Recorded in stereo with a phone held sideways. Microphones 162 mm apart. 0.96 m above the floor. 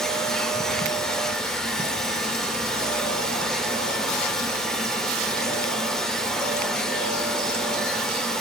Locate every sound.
0.0 s a machine running: 5° left (ahead or behind), 2 m